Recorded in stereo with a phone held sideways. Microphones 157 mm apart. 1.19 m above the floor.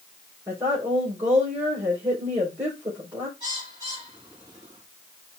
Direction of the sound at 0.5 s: 25° right (ahead or behind).